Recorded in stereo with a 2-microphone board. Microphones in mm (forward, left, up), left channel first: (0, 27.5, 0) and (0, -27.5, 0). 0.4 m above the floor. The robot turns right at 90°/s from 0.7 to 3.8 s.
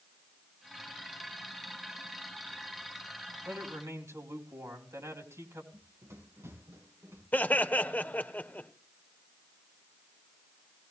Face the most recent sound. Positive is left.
turn(degrees=35)  # may be behind; listen again after turning